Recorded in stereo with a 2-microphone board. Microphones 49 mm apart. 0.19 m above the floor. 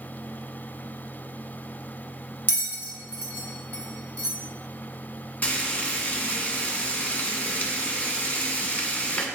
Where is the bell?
35° left (ahead or behind), 1.5 m.